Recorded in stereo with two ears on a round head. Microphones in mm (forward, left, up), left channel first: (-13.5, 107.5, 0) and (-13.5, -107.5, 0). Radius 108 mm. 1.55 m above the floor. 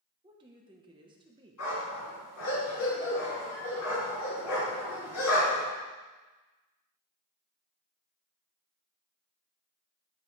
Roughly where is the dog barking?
Left.